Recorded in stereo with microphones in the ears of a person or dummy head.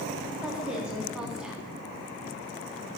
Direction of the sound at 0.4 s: 5° right (ahead or behind).